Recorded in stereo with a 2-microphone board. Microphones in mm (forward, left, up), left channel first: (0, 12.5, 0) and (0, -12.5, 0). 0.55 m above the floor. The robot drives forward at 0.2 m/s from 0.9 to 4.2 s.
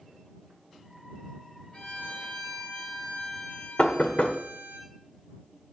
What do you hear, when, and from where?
1.7 s a violin: 55° left (ahead or behind), 4 m; by 4.8 s 50° left (ahead or behind), 4 m
3.8 s knocking: 65° left (ahead or behind), 1.0 m; by 4.4 s 70° left (ahead or behind), 1.0 m